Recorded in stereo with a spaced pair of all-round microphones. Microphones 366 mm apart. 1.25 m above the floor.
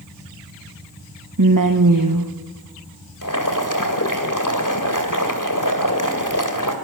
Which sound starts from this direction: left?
Boiling, at 3.2 s.